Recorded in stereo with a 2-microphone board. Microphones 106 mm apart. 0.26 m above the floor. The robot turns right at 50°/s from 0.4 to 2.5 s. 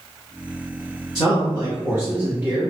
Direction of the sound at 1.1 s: 95° right.